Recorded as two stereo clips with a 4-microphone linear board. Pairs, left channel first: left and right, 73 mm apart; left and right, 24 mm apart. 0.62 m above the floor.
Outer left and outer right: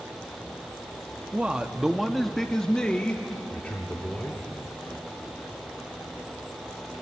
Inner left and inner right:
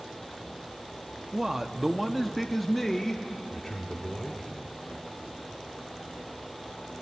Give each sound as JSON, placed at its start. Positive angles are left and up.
{"t": 1.3, "sound": "a man speaking", "side_deg": -15, "distance_m": 0.9}